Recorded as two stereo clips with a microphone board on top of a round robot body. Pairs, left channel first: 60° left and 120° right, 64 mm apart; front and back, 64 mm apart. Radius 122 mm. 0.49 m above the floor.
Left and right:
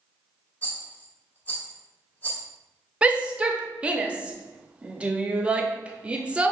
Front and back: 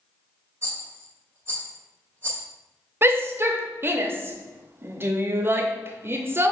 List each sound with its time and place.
0.6 s a rattle: 125° left, 1.6 m
3.0 s a shout: straight behind, 0.8 m